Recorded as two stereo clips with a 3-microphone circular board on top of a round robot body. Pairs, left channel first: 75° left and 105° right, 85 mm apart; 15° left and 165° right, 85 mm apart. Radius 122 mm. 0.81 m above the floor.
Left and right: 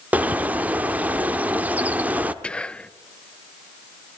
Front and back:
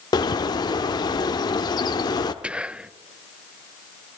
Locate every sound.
0.1 s a bird: 30° right, 0.9 m
2.4 s whispering: 135° left, 0.6 m